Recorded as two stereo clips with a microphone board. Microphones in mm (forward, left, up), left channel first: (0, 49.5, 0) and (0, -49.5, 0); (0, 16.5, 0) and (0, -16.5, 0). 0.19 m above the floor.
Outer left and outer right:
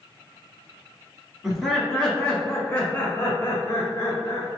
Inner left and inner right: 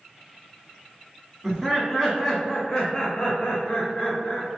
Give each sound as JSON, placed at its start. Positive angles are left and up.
{"t": 1.4, "sound": "laughter", "side_deg": -5, "distance_m": 1.4}